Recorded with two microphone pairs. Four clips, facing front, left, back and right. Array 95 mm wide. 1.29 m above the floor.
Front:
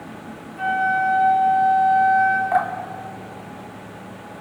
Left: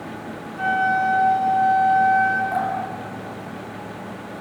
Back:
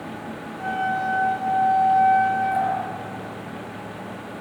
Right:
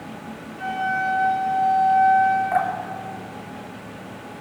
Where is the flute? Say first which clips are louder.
Left 5 dB, front 5 dB; 70° left, 6 m.